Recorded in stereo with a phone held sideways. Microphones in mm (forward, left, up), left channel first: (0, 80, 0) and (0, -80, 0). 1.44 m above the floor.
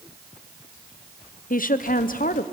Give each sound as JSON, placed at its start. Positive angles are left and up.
{"t": 1.5, "sound": "a woman speaking", "side_deg": 60, "distance_m": 0.8}